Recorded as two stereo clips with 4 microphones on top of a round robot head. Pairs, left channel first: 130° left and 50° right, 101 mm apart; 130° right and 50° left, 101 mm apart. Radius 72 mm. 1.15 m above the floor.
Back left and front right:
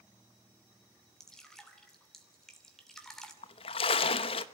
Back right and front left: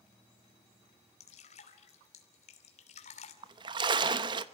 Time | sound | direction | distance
1.2 | dripping | 145° right | 2.5 m
3.4 | a splash | 95° left | 1.0 m